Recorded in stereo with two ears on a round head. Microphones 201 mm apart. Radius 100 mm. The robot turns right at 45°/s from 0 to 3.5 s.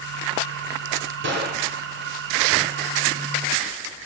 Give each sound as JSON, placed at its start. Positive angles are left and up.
{"t": 1.2, "sound": "a gunshot", "side_deg": -55, "distance_m": 2.0}